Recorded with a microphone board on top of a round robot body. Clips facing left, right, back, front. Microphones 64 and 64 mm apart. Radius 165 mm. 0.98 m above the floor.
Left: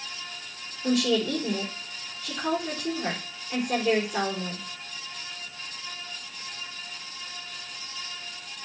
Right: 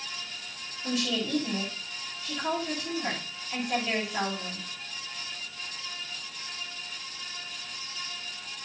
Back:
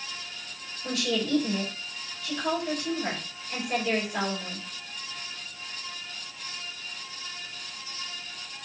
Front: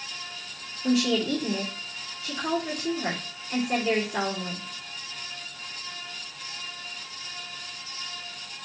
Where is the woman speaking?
75° left, 4.5 m.